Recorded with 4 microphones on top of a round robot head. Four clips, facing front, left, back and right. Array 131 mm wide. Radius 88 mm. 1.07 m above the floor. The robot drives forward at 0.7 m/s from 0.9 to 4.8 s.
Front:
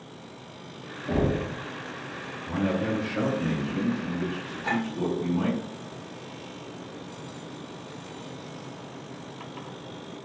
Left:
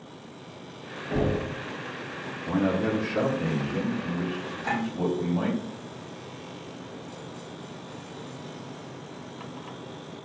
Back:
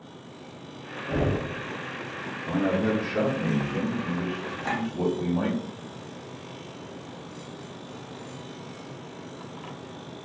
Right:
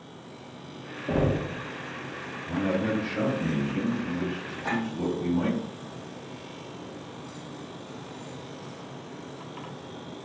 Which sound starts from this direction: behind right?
A clink, at 4.6 s.